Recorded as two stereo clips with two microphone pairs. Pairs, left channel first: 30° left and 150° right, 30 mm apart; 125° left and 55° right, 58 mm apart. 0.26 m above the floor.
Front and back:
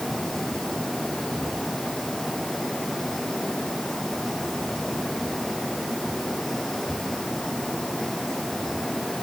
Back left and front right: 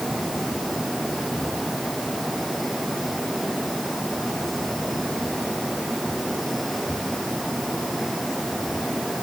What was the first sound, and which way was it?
Only background noise.